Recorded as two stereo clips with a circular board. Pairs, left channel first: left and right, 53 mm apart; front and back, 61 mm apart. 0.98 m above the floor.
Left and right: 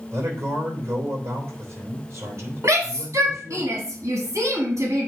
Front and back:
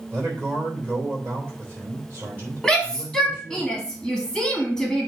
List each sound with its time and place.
0.1 s a man speaking: 125° right, 3 m
2.6 s a shout: 95° right, 1.5 m